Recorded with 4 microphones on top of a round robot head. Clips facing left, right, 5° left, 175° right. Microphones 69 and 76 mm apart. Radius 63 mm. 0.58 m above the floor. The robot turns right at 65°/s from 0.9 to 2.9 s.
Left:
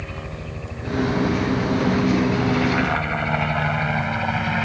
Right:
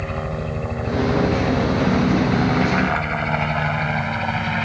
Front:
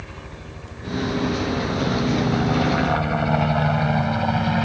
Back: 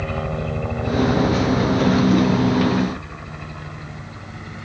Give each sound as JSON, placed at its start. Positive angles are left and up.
{"t": 0.0, "sound": "a helicopter", "azimuth_deg": -150}